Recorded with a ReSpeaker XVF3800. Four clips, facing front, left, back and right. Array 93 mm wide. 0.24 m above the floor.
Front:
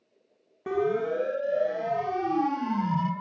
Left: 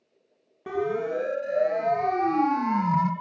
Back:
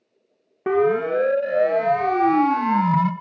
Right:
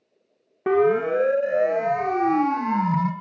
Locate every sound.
0.7 s a siren: 135° right, 2.5 m; by 3.1 s 170° left, 3 m